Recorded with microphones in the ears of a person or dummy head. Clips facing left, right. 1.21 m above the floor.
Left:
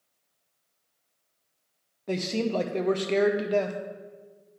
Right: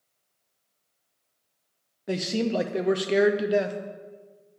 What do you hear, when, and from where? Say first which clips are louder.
2.1 s a man speaking: right 1 dB; 10° right (ahead or behind), 0.5 m